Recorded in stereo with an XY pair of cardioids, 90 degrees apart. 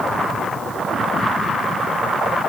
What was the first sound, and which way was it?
Only background noise.